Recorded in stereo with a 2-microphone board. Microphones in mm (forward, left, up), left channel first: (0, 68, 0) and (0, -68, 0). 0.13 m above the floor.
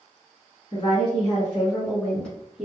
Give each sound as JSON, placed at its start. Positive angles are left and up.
{"t": 0.7, "sound": "a woman speaking", "side_deg": 35, "distance_m": 1.8}